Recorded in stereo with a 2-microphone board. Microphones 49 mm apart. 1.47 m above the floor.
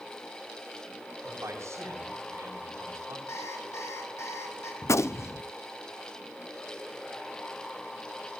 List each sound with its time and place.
1.2 s a man speaking: 75° right (ahead or behind), 9.5 m
3.3 s an alarm clock: 75° left (ahead or behind), 5 m
4.8 s a gunshot: 70° left (ahead or behind), 0.6 m